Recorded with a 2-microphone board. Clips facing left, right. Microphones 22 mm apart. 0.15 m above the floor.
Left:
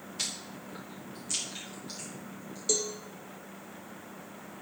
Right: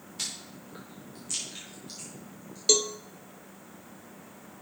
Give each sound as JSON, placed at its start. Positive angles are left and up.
{"t": 0.2, "sound": "chewing", "side_deg": 0, "distance_m": 4.0}
{"t": 2.7, "sound": "a cowbell", "side_deg": -50, "distance_m": 0.6}